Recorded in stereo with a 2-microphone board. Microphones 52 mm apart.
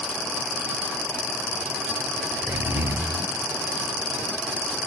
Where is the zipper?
45° right (ahead or behind).